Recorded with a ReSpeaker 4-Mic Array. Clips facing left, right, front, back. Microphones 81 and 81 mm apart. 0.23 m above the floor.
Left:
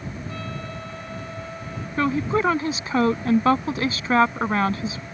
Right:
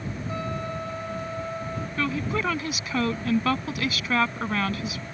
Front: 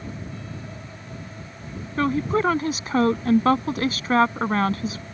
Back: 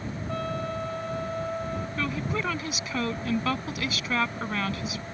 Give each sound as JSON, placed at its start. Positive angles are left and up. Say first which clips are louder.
{"t": 0.3, "sound": "a trumpet", "louder": "right 3 dB, back 7 dB", "azimuth_deg": -160}
{"t": 2.0, "sound": "a woman speaking", "louder": "left 7 dB, front 11 dB", "azimuth_deg": 40}